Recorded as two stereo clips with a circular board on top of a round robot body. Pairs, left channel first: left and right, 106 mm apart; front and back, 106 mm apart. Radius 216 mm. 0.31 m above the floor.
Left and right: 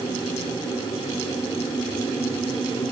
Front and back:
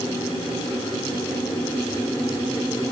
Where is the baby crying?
No baby crying in this recording.